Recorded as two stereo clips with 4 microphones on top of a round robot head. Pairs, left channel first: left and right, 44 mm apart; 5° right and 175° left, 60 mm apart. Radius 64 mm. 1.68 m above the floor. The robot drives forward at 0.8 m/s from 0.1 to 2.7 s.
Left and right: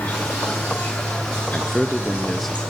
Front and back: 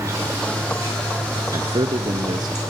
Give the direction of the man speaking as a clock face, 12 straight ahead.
6 o'clock.